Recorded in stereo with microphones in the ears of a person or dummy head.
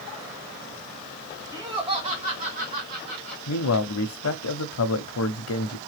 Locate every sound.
1.5 s laughter: 15° right (ahead or behind), 1.6 m; by 3.4 s 50° right (ahead or behind), 2.5 m
3.5 s a man speaking: 75° left (ahead or behind), 0.7 m